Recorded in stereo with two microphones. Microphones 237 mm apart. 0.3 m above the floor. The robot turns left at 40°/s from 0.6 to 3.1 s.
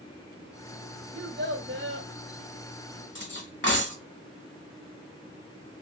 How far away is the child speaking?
About 1.1 m.